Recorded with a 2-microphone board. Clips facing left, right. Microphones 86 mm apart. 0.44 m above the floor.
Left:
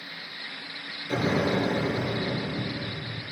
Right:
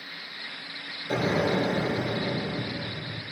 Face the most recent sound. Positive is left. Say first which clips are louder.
# even
turn(degrees=-40)  # may be behind; listen again after turning